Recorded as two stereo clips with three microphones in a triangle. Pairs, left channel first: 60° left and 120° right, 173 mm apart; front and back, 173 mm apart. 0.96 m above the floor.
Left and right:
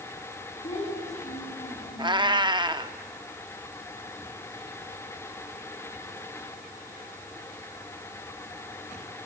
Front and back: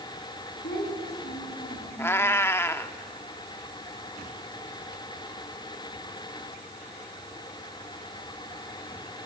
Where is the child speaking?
10° left, 7 m; by 2.2 s 20° left, 5.5 m.